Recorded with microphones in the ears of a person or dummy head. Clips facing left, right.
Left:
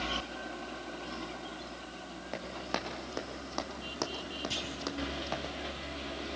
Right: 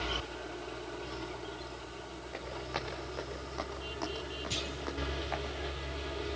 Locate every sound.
2.3 s running footsteps: 75° left (ahead or behind), 6 m; by 5.5 s 45° left (ahead or behind), 4 m
4.5 s a clunk: 10° left (ahead or behind), 4.5 m